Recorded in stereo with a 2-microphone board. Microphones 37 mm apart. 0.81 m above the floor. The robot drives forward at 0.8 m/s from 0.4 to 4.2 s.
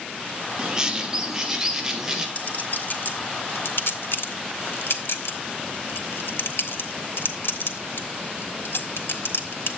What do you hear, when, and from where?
0.6 s a bird: 25° right (ahead or behind), 1.4 m; by 2.2 s 15° right (ahead or behind), 2.5 m
2.4 s a clink: 45° left (ahead or behind), 1.7 m; by 9.8 s 75° left (ahead or behind), 1.2 m